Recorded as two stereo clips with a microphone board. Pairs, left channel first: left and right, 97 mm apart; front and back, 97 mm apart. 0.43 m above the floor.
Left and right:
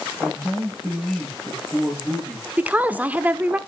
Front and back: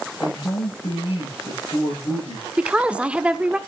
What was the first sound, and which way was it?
A man speaking, straight ahead.